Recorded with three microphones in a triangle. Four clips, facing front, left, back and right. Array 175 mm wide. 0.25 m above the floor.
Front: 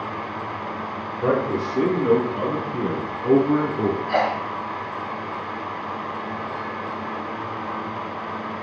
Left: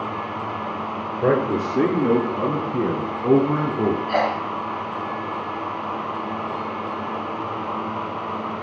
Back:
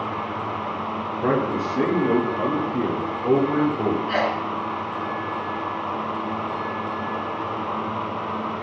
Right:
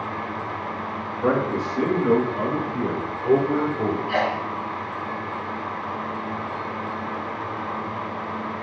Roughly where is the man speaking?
Left.